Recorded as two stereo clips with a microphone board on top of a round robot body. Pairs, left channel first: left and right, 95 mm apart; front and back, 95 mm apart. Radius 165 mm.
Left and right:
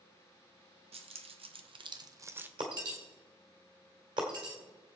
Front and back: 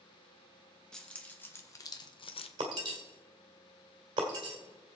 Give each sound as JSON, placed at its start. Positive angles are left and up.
{"t": 0.9, "sound": "keys jangling", "azimuth_deg": -85, "distance_m": 1.5}
{"t": 2.6, "sound": "breaking glass", "azimuth_deg": -135, "distance_m": 1.4}